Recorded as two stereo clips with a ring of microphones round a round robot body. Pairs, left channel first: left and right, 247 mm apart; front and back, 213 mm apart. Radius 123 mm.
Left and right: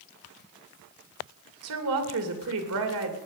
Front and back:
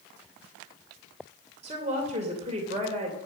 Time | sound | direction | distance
1.6 | a woman speaking | 115° right | 2.5 m